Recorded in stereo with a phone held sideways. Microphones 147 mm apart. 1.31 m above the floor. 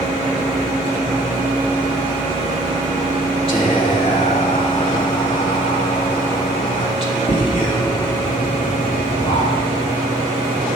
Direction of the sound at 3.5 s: 40° left (ahead or behind).